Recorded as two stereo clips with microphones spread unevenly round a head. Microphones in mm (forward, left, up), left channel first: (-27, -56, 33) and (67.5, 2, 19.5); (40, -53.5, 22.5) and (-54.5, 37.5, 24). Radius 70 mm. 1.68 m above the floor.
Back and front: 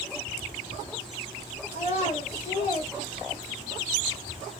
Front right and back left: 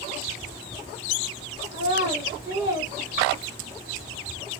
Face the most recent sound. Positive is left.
turn(degrees=-170)